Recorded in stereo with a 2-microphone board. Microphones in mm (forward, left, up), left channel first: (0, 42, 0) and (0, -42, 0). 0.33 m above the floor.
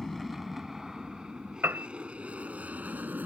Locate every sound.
0.0 s an aircraft: centre (ahead or behind); by 3.3 s 20° right (ahead or behind)
1.6 s a piano: 25° right (ahead or behind)